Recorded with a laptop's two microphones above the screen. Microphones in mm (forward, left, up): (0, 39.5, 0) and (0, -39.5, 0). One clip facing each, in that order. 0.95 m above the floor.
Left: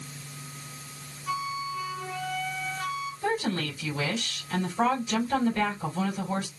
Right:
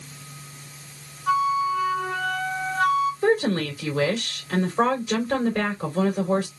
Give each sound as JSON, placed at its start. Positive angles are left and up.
{"t": 1.3, "sound": "a flute", "side_deg": -55, "distance_m": 0.9}
{"t": 3.2, "sound": "a woman speaking", "side_deg": -75, "distance_m": 3.5}